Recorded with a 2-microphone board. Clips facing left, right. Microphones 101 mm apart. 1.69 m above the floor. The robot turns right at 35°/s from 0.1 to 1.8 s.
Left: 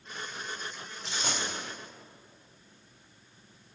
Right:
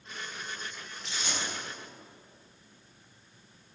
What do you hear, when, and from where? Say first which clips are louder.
1.1 s a dropped coin: left 2 dB; 65° left (ahead or behind), 4 m; by 1.4 s 75° left (ahead or behind), 4 m